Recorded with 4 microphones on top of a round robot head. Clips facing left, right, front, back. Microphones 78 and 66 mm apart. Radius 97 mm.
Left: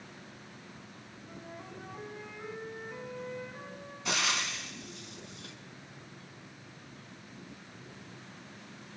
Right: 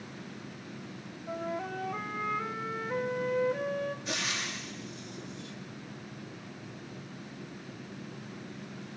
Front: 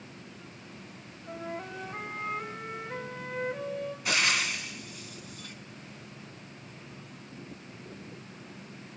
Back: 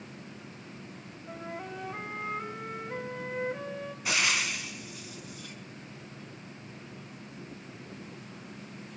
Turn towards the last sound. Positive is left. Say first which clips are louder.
# left 2 dB, even
turn(degrees=90)